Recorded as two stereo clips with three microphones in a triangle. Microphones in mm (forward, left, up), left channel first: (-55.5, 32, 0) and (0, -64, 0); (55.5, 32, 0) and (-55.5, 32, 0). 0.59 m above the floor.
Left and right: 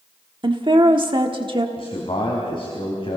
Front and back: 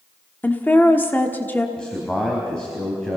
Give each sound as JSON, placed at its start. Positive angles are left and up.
{"t": 0.4, "sound": "a woman speaking", "azimuth_deg": -65, "distance_m": 1.2}
{"t": 1.8, "sound": "a man speaking", "azimuth_deg": 85, "distance_m": 3.5}